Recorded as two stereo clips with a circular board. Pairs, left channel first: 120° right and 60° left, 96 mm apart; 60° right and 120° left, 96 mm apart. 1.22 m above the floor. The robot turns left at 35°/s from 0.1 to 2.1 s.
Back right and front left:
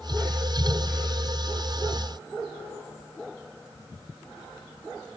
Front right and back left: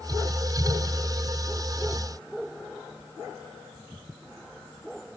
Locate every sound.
Only background noise.